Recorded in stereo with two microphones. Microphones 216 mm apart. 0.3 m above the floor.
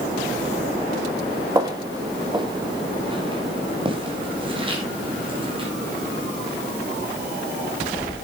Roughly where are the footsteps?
Centre.